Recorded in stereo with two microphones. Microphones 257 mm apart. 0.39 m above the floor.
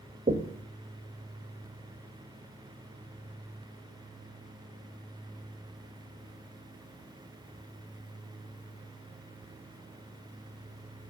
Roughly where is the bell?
I don't hear a bell.